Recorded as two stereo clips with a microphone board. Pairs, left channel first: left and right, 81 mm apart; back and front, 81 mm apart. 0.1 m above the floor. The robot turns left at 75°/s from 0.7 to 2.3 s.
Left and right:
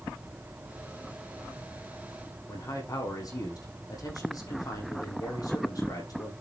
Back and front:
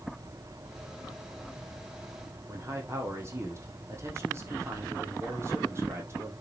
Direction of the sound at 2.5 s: 55° left.